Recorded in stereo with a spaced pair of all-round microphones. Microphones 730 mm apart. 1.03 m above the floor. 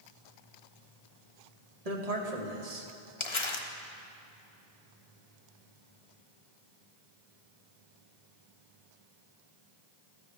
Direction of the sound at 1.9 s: 55° right (ahead or behind).